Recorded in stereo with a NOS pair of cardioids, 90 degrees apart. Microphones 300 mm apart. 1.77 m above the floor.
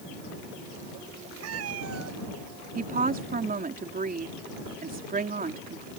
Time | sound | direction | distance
1.4 | a cat meowing | 60° right | ?
2.8 | a woman speaking | 30° right | ?